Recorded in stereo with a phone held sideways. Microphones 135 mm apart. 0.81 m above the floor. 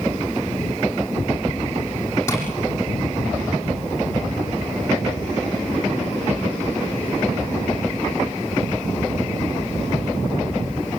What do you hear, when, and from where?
2.3 s tapping: 20° left (ahead or behind), 8.5 m